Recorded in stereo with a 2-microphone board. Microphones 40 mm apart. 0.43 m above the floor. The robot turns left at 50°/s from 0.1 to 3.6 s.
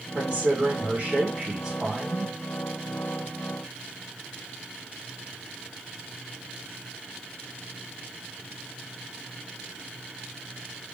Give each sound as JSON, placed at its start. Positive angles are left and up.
{"t": 0.1, "sound": "a man speaking", "azimuth_deg": -55, "distance_m": 1.2}